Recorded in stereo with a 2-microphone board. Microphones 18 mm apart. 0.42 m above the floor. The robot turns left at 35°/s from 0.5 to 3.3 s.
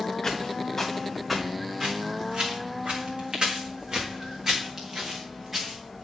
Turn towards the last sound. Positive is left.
turn(degrees=-15)  # may be behind; listen again after turning